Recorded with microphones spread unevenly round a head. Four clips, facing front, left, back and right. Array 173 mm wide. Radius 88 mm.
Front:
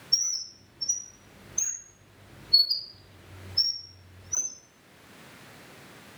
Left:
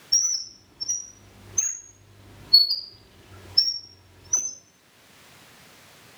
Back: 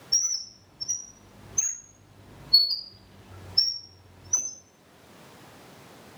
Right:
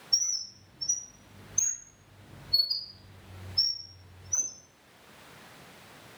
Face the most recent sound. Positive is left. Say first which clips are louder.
# left 5 dB, back 1 dB
turn(degrees=85)